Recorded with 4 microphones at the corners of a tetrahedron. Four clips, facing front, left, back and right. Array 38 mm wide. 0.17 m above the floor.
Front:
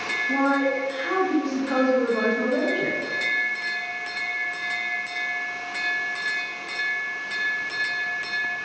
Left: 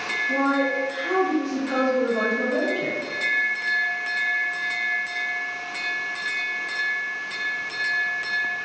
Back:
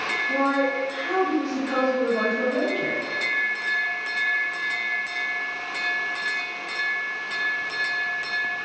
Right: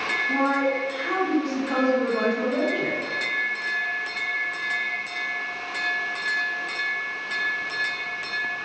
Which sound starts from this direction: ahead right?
A woman speaking, at 0.3 s.